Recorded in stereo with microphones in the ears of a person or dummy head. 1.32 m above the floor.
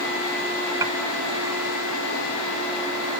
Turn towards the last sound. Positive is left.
turn(degrees=-20)  # may be behind; listen again after turning